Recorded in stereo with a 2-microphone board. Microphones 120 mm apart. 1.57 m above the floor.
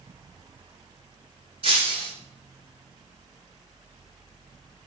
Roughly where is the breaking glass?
Right.